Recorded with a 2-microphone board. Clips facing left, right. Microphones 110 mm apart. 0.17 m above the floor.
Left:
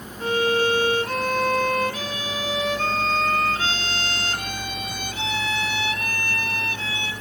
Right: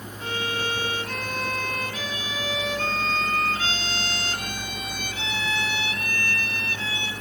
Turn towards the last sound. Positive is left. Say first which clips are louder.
# left 9 dB
turn(degrees=40)  # may be behind; listen again after turning